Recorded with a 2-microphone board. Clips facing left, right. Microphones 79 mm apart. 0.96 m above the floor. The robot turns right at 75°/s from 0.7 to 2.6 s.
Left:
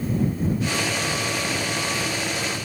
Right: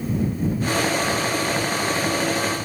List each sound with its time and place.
Only background noise.